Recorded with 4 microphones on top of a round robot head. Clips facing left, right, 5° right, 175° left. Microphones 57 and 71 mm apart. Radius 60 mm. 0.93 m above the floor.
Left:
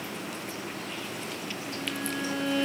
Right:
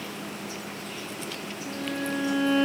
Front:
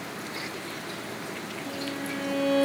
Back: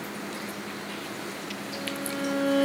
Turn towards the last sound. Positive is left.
turn(degrees=-35)